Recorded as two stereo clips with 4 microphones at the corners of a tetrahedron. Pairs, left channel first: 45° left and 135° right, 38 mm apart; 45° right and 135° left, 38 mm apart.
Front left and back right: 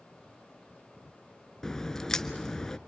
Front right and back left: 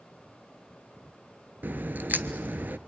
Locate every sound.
1.6 s a crack: 120° left, 0.7 m